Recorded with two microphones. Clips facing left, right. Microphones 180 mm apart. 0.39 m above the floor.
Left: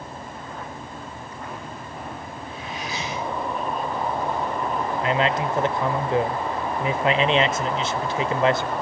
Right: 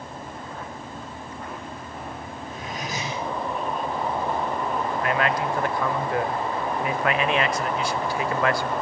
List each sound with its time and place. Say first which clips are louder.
2.4 s cutlery clinking: right 1 dB; 40° right (ahead or behind), 10 m
5.0 s a man speaking: left 2 dB; 20° left (ahead or behind), 1.1 m